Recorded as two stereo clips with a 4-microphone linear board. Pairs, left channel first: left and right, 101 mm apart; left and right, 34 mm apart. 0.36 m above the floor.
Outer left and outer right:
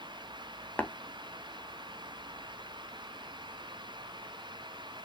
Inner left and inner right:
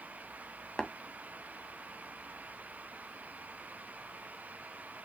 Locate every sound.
0.8 s tapping: 15° left (ahead or behind), 0.7 m